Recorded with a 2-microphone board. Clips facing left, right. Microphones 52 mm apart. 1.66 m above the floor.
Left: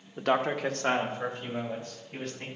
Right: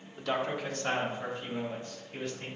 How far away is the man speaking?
About 0.7 m.